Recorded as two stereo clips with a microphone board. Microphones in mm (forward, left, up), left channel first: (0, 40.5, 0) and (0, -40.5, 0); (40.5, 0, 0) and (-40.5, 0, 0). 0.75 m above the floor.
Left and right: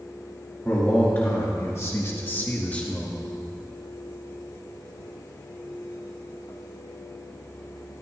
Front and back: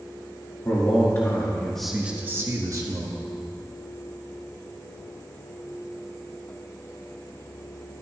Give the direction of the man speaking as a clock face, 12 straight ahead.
11 o'clock.